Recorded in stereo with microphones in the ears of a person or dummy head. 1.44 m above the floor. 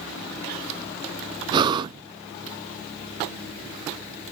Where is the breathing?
20° right (ahead or behind), 0.6 m.